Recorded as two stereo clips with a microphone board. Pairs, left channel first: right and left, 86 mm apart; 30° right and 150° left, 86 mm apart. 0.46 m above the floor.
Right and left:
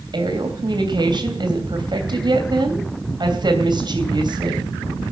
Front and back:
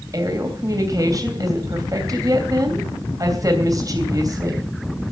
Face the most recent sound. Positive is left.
turn(degrees=110)